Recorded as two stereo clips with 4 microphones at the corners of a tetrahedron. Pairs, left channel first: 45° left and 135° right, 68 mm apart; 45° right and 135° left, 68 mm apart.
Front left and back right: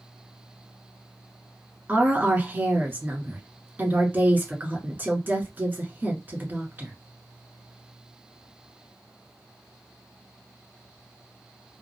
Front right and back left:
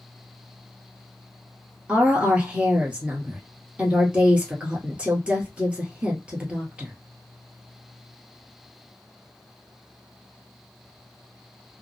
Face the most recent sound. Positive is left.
turn(degrees=-165)